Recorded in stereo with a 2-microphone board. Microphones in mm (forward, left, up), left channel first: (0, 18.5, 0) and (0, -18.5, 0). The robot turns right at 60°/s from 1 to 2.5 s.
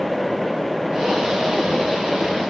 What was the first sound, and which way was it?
Only background noise.